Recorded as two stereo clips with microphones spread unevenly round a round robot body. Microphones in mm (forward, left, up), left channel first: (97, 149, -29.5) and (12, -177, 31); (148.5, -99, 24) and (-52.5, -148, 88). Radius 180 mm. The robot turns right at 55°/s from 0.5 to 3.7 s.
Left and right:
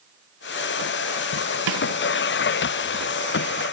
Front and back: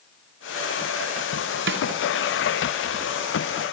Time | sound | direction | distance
1.7 | a snare drum | 145° right | 2.5 m